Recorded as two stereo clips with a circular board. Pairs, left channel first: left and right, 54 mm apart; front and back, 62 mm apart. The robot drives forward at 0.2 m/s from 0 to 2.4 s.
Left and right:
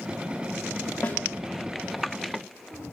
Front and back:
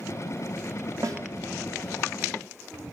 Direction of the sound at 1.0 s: 155° left.